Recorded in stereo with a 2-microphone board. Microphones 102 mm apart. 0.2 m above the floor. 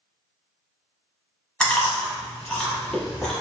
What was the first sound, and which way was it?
Chewing, 10° left (ahead or behind).